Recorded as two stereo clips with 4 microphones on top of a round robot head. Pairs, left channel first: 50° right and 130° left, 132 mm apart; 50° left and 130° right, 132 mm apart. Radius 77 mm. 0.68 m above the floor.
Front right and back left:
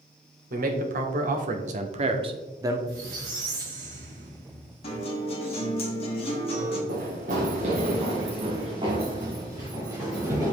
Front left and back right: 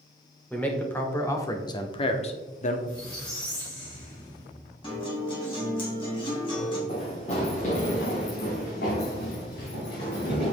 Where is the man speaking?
130° left, 2 m; by 2.8 s 60° left, 1.3 m.